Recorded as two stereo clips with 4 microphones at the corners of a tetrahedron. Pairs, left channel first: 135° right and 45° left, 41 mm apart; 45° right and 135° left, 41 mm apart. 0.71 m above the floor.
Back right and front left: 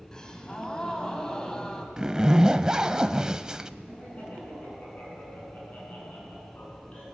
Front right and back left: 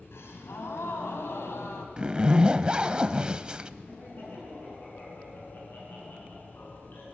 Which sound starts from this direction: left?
A zipper, at 2.0 s.